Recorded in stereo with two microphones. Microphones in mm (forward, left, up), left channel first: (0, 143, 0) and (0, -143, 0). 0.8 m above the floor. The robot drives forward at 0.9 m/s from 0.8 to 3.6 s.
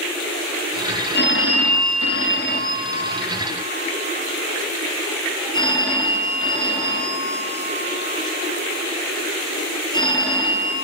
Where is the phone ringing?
35° left (ahead or behind), 0.8 m; by 10.8 s 15° left (ahead or behind), 1.7 m.